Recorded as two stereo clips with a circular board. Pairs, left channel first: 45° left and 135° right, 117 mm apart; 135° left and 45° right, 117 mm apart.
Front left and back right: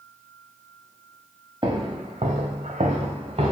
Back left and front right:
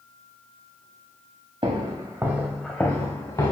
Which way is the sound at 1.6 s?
85° right.